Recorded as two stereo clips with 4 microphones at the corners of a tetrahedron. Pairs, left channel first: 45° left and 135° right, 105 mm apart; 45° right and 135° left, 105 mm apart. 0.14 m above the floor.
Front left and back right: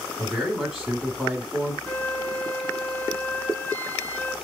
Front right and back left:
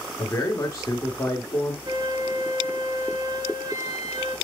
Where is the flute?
110° left, 1.0 m.